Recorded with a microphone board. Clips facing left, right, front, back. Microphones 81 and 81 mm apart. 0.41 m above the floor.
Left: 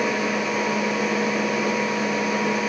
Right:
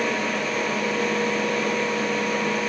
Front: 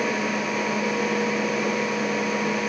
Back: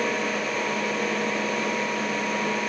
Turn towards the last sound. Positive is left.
No sound to turn to.